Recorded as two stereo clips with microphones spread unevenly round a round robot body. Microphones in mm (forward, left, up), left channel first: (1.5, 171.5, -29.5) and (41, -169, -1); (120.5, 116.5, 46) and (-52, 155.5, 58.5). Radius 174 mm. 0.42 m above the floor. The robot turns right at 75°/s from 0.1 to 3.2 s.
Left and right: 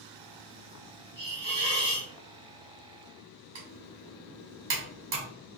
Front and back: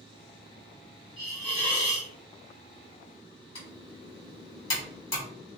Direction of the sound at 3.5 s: 45° right.